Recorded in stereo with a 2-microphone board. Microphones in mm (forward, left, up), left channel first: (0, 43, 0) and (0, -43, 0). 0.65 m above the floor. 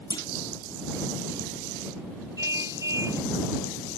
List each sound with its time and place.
0.1 s a clunk: 55° left (ahead or behind)
2.4 s a car horn: 40° right (ahead or behind)